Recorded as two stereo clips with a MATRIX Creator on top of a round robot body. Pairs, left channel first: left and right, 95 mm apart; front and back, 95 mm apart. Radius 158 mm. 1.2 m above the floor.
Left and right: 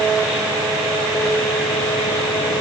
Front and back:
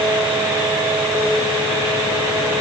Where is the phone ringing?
No phone ringing in this recording.